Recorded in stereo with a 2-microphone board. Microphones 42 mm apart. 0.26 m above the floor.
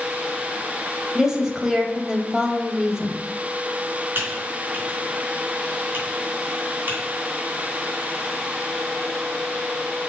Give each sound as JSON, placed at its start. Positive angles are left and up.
{"t": 1.1, "sound": "a woman speaking", "side_deg": -15, "distance_m": 1.0}
{"t": 4.2, "sound": "typing on a keyboard", "side_deg": -55, "distance_m": 2.5}